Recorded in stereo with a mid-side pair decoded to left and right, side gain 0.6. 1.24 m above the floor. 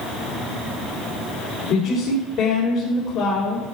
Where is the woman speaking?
55° left, 3 m.